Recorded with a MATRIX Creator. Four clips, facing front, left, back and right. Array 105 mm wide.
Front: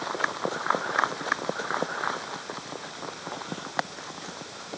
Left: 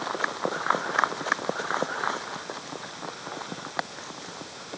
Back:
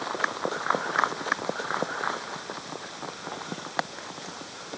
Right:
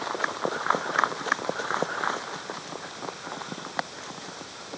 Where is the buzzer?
I don't hear a buzzer.